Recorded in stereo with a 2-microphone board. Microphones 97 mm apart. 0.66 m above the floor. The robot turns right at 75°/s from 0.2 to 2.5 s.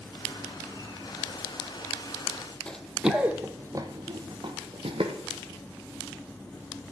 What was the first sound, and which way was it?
Running footsteps, 10° left (ahead or behind).